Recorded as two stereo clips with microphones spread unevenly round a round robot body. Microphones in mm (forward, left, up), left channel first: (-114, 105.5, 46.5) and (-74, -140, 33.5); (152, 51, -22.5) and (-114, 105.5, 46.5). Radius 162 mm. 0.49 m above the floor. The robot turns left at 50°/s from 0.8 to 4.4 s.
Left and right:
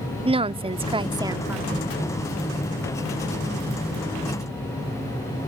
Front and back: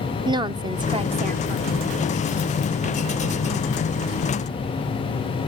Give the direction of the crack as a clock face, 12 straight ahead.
I don't hear a crack.